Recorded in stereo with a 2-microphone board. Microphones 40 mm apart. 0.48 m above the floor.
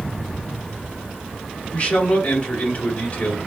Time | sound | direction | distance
1.7 | a man speaking | 40° left (ahead or behind) | 1.6 m